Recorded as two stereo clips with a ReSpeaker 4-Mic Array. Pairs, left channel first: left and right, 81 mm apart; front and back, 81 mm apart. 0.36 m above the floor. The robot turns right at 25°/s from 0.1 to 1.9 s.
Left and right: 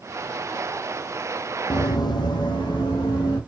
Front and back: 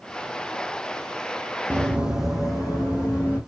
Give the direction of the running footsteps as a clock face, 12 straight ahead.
8 o'clock.